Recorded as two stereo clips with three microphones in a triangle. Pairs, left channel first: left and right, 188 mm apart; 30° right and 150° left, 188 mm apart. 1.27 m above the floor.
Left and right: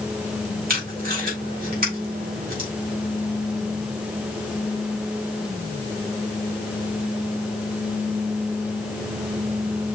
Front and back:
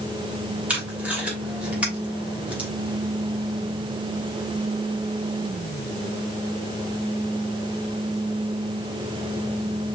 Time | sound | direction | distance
0.7 | tape being pulled | 125° right | 2.5 m